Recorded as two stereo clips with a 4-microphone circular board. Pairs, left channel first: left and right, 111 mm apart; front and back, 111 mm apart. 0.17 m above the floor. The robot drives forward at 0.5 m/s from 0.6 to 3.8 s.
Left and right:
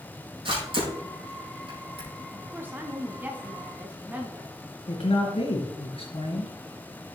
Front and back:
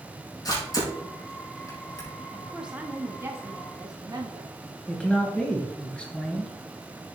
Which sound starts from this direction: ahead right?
A camera shutter, at 0.5 s.